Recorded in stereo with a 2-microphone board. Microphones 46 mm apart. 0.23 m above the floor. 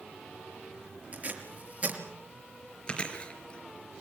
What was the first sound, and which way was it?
Tape being pulled, 35° right (ahead or behind).